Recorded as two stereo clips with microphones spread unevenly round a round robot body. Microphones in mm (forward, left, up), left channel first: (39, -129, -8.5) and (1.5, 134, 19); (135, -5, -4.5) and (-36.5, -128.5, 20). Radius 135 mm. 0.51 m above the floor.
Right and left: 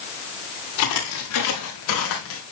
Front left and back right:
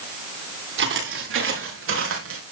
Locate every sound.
0.8 s footsteps: 115° right, 6 m; by 2.4 s 125° right, 5 m